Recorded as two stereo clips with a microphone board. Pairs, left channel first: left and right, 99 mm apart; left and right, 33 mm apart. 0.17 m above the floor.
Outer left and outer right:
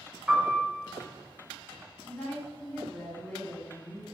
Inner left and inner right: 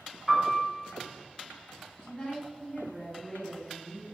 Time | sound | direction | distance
0.3 | a piano | 15° right (ahead or behind) | 1.7 m
2.0 | a woman speaking | 30° left (ahead or behind) | 1.2 m